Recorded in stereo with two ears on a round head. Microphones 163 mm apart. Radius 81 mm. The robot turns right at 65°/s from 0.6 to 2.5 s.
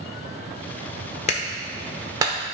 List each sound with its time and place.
1.3 s a clap: 40° left (ahead or behind), 1.2 m; by 2.4 s 30° right (ahead or behind), 1.2 m